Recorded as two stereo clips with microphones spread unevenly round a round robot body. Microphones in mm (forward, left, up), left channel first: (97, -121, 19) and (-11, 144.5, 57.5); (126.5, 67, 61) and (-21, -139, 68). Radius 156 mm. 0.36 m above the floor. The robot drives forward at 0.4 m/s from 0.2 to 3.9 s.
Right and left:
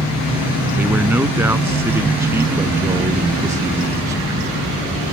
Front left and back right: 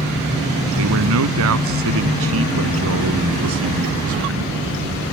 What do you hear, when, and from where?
0.8 s a man speaking: 165° right